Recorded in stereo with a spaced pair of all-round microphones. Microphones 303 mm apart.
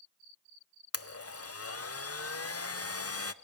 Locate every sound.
0.9 s a blender: 55° left (ahead or behind), 0.6 m